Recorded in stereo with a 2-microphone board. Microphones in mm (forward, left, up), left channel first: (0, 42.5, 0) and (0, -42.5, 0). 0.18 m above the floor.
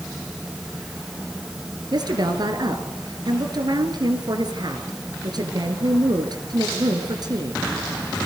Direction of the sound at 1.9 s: 55° right (ahead or behind).